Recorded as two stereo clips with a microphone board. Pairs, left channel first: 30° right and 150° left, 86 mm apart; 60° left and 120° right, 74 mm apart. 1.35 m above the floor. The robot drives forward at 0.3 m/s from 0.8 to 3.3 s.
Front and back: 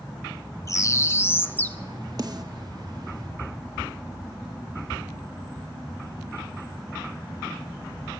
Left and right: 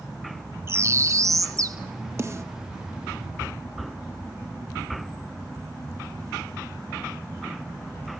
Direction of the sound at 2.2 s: 170° right.